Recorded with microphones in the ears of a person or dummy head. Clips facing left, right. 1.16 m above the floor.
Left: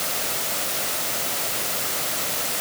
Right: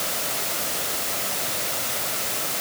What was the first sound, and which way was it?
Only background noise.